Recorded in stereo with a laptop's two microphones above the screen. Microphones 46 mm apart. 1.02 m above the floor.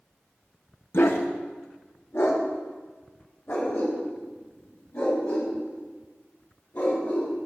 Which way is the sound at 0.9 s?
55° left (ahead or behind).